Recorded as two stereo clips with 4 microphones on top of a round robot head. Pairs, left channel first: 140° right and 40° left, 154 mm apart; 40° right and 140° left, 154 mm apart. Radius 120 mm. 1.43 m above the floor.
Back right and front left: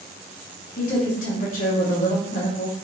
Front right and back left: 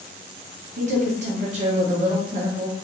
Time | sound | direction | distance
0.8 | a woman speaking | 175° right | 0.9 m